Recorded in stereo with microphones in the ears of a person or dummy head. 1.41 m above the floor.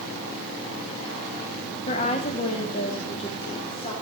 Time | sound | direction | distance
1.9 | a woman speaking | 35° left (ahead or behind) | 1.4 m